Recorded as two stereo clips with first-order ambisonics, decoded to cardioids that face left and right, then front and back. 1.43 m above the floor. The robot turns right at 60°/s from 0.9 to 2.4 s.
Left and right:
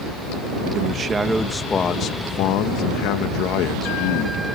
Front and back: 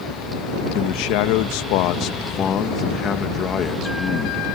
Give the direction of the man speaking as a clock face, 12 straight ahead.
1 o'clock.